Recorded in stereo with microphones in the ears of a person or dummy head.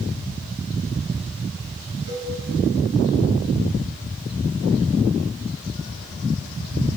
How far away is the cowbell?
About 4.5 m.